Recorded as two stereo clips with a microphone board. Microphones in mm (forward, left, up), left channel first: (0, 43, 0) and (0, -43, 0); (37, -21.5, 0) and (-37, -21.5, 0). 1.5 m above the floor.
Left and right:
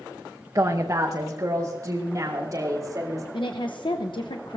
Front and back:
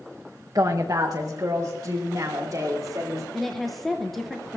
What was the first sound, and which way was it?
A woman speaking, 140° right.